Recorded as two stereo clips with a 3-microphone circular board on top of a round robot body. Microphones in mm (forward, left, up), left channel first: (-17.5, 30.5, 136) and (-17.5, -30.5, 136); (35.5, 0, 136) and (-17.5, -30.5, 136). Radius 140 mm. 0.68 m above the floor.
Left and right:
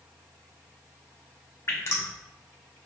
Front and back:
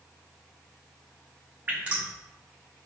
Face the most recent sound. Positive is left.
turn(degrees=140)